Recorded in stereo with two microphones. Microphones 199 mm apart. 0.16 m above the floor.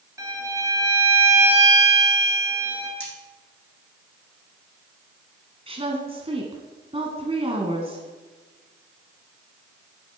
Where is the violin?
15° right (ahead or behind), 2.5 m.